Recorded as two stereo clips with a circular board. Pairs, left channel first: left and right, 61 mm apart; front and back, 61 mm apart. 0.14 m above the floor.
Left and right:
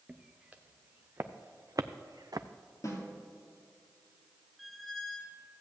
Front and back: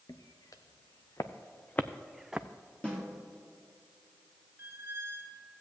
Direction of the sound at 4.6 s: 175° right.